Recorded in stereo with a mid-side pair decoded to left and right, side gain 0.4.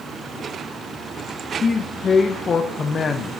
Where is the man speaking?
50° left, 0.5 m.